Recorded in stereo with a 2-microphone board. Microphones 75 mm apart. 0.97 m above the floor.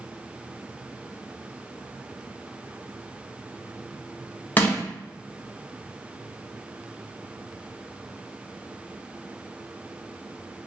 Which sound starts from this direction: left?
Crushing, at 4.6 s.